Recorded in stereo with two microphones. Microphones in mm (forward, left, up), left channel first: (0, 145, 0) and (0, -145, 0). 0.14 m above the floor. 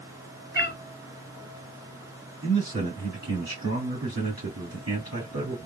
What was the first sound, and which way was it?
A cat meowing, 35° left (ahead or behind).